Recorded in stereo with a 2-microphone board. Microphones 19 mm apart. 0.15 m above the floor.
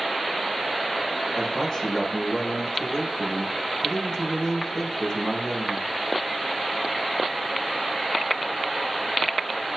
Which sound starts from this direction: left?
A man speaking, at 1.4 s.